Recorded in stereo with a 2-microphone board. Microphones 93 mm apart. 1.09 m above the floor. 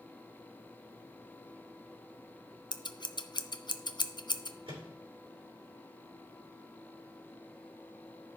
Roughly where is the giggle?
I don't hear a giggle.